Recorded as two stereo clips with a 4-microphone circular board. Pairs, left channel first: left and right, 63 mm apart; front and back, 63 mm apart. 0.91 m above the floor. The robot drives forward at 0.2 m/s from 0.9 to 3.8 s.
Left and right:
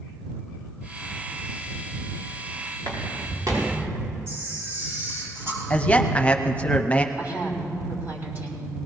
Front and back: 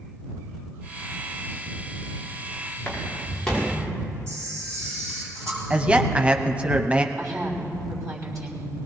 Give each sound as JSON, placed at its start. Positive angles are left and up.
{"t": 2.8, "sound": "footsteps", "azimuth_deg": -80, "distance_m": 6.0}
{"t": 4.3, "sound": "a camera shutter", "azimuth_deg": -135, "distance_m": 6.5}
{"t": 5.7, "sound": "a man speaking", "azimuth_deg": 135, "distance_m": 0.7}
{"t": 7.2, "sound": "a woman speaking", "azimuth_deg": -145, "distance_m": 5.0}